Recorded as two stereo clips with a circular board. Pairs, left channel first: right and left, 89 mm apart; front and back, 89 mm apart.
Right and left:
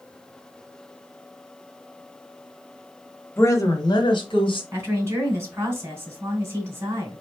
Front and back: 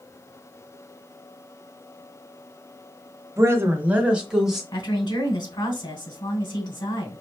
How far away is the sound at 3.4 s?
About 1.1 m.